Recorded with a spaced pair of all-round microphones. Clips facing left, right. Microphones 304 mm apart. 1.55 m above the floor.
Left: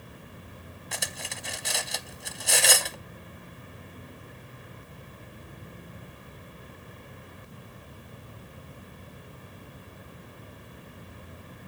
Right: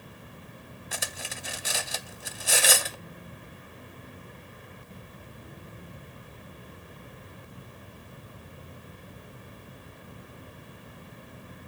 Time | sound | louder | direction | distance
0.9 | cutlery clinking | even | centre (ahead or behind) | 0.6 m